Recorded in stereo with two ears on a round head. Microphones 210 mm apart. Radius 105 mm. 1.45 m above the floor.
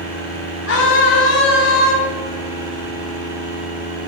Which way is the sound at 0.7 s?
50° left (ahead or behind).